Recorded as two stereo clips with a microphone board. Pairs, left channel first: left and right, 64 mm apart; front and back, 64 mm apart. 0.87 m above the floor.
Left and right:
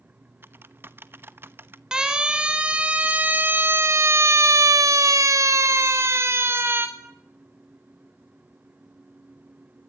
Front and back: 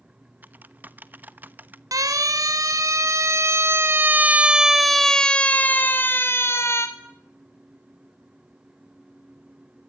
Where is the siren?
170° right, 4.5 m; by 6.9 s 40° right, 4 m.